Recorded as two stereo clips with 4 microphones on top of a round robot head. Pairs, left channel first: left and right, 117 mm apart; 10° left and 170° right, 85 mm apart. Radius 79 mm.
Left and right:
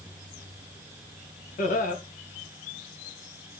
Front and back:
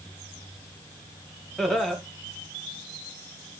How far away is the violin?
No violin in this recording.